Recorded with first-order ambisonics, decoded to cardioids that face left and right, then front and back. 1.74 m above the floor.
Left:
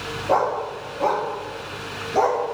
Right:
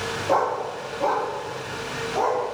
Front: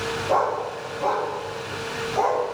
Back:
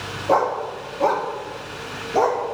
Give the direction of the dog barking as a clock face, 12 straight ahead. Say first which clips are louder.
Left 2 dB, back 4 dB; 6 o'clock.